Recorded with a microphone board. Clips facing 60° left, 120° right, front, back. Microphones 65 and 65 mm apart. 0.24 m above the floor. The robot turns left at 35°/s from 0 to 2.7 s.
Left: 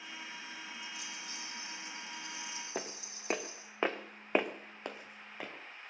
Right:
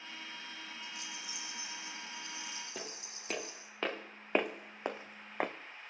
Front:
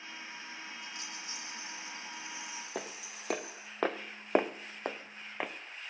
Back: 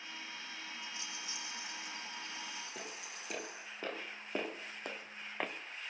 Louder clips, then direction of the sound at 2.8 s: Left 4 dB, front 5 dB; 15° left.